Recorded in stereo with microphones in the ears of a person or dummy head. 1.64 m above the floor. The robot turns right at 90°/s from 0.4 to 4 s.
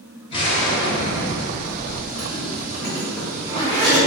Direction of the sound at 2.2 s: 25° left.